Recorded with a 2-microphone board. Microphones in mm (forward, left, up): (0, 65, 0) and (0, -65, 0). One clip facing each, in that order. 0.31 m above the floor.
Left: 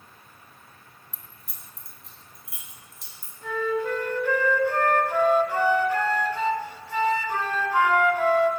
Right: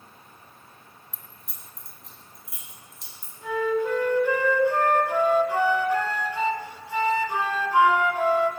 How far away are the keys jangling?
About 1.9 m.